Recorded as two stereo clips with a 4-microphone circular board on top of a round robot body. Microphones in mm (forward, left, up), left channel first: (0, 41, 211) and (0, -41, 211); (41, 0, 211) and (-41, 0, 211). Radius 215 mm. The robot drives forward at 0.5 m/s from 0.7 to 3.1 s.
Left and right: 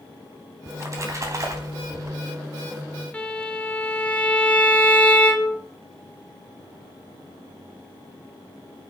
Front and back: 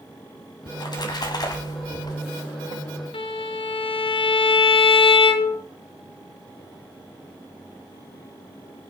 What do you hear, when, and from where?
0.7 s a splash: 35° right, 3 m; by 2.2 s 45° right, 2.5 m
3.1 s a violin: 15° left, 1.4 m